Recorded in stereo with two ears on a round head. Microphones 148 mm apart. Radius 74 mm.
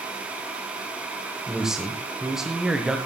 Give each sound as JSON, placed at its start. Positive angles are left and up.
{"t": 1.5, "sound": "a man speaking", "side_deg": -5, "distance_m": 1.5}